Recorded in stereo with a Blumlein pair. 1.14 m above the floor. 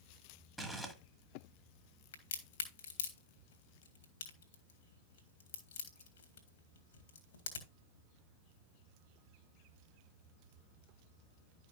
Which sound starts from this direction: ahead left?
A crack, at 2.1 s.